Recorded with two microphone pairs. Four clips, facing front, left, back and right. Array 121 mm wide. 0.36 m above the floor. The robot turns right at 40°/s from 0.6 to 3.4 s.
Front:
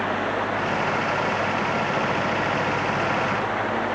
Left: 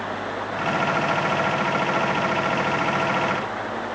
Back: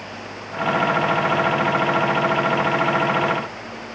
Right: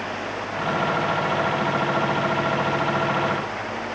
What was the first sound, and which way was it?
Only background noise.